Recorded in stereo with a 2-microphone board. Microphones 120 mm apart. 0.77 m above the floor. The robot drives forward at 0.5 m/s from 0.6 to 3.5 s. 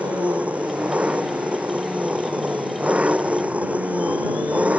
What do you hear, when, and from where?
0.0 s an engine running: 10° right (ahead or behind)